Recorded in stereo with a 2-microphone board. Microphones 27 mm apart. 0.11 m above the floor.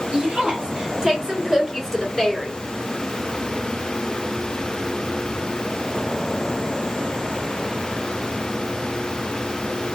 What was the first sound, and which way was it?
A woman speaking, 40° right (ahead or behind).